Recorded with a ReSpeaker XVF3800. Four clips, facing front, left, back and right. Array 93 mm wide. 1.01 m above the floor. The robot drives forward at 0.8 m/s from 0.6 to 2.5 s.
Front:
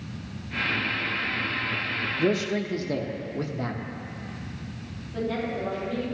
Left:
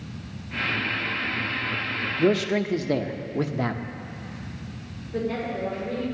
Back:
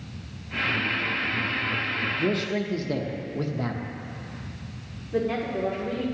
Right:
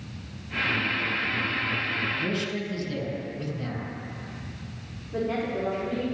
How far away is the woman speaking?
About 2.5 m.